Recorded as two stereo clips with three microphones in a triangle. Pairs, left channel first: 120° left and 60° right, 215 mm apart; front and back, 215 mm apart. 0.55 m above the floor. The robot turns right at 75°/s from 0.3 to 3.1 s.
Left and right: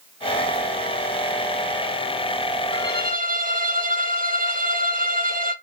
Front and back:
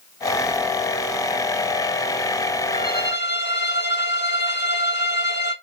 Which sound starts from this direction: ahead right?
A violin, at 2.7 s.